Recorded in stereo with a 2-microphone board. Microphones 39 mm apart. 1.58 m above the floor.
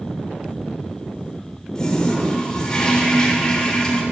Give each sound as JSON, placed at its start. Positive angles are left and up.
{"t": 1.8, "sound": "a toilet flushing", "side_deg": 15, "distance_m": 1.3}